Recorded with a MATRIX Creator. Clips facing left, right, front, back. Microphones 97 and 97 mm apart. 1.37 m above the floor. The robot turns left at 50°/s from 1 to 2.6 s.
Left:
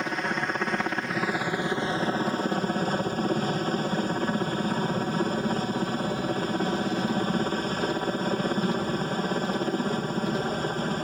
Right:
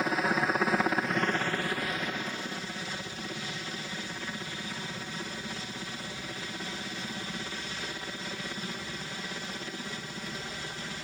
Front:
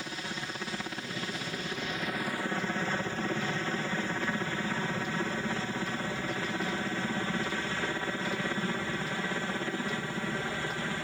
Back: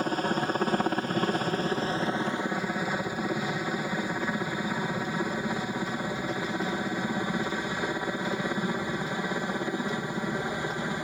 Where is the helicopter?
175° right; by 11.1 s 110° left.